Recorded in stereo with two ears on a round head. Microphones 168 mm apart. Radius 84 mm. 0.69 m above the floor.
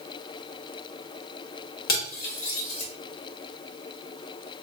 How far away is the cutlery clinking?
About 1.4 m.